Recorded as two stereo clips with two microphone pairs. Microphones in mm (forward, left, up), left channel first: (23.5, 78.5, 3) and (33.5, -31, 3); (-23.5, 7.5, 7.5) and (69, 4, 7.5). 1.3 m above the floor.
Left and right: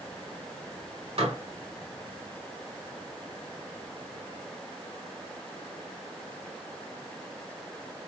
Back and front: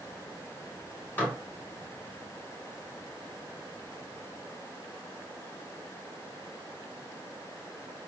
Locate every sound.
1.2 s dishes clattering: 110° right, 1.7 m